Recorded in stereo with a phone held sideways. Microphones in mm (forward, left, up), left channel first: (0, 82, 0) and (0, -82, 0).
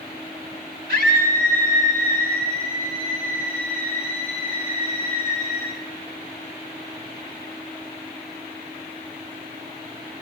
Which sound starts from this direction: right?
A scream, at 0.9 s.